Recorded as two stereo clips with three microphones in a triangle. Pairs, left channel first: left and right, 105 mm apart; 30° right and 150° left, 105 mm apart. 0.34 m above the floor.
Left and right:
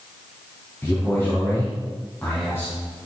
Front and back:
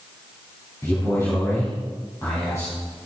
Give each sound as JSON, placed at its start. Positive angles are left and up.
{"t": 0.8, "sound": "a man speaking", "azimuth_deg": 30, "distance_m": 3.5}